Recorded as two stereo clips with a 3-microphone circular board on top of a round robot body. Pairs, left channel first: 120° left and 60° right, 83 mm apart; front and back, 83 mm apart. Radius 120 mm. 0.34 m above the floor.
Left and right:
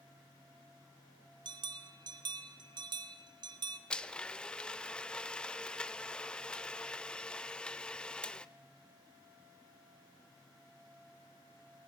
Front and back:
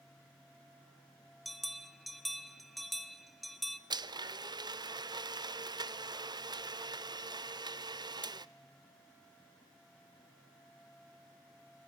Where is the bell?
90° right, 1.0 m.